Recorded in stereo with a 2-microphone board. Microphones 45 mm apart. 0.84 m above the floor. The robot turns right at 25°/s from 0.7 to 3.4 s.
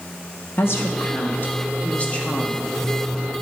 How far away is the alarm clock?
I don't hear an alarm clock.